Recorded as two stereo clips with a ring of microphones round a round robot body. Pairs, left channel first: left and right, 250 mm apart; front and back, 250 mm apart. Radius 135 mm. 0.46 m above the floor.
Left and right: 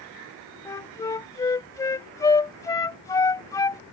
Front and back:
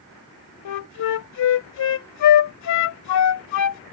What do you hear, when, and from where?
0.7 s a flute: 10° left